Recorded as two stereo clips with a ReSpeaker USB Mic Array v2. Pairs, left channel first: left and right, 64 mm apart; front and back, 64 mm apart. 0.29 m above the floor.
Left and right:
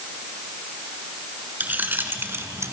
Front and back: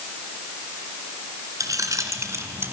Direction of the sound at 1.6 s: 150° right.